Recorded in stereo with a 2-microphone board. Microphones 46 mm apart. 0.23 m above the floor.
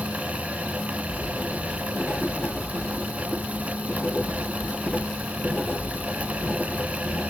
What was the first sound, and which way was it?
Writing, 40° left (ahead or behind).